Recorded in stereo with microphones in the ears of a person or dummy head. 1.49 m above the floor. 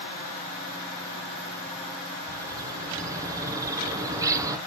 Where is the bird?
20° right (ahead or behind), 0.9 m.